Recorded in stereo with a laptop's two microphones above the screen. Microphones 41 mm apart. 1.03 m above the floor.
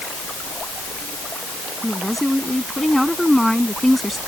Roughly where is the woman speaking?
Centre.